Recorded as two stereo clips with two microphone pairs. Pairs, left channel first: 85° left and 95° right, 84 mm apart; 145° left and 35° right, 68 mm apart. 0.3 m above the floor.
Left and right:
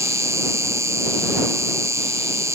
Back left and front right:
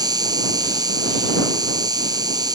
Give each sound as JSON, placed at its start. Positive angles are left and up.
{"t": 0.0, "sound": "an insect", "azimuth_deg": -40}